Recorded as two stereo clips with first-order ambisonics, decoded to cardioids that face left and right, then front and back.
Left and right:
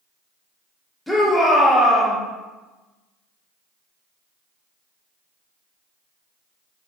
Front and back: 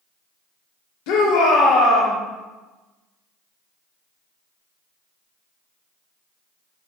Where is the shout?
5° left, 2 m.